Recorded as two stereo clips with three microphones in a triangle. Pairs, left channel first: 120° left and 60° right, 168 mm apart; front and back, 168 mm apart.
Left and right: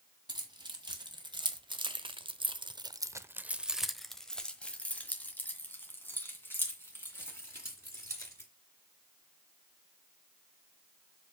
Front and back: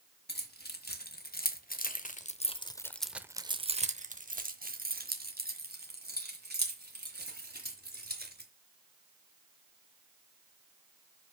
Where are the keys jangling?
5° left, 1.8 m; by 8.5 s 165° right, 3.5 m.